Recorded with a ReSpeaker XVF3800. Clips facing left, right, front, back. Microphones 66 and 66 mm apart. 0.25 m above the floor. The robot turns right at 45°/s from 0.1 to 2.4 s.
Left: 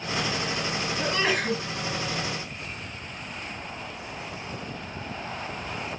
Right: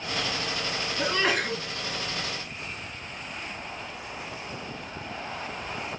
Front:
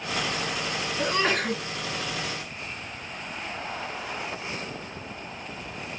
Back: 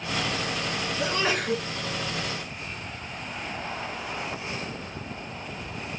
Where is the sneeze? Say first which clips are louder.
Right 1 dB, front 2 dB; 15° right, 2.5 m; by 1.6 s 15° left, 2.5 m.